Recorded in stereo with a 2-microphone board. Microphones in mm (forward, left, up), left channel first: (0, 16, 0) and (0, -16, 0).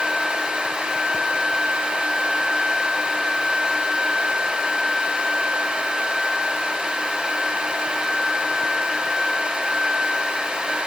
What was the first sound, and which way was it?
Only background noise.